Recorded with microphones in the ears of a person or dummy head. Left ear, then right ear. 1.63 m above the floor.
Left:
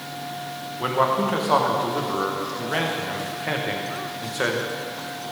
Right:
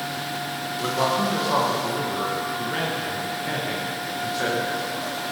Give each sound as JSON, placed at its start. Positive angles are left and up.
{"t": 0.8, "sound": "a man speaking", "side_deg": 25, "distance_m": 1.6}